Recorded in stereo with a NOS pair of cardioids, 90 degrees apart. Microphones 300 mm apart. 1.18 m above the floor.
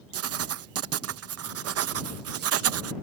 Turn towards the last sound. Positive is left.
turn(degrees=-55)